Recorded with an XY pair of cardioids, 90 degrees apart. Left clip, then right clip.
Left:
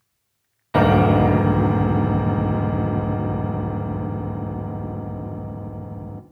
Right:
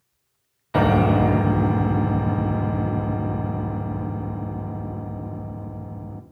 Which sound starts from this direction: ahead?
A piano, at 0.7 s.